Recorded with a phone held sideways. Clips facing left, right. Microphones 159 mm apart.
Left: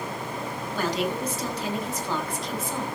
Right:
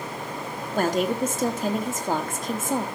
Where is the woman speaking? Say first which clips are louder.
Right 5 dB; 50° right (ahead or behind), 1.3 m.